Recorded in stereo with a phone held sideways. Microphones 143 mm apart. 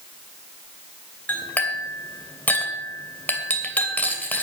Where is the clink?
10° left (ahead or behind), 2.5 m.